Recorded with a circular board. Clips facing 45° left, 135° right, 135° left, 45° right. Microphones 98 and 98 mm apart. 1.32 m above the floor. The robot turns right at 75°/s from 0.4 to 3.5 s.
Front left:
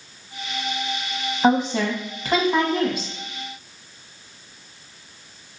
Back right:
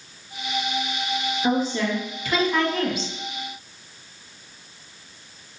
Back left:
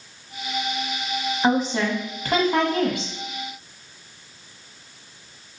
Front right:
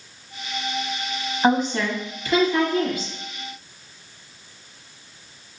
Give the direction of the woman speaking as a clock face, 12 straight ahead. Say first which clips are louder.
Front left 5 dB, front right 2 dB; 11 o'clock.